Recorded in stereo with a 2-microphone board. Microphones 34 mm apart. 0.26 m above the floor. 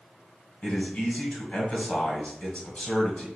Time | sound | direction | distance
0.6 | a man speaking | 35° left (ahead or behind) | 1.2 m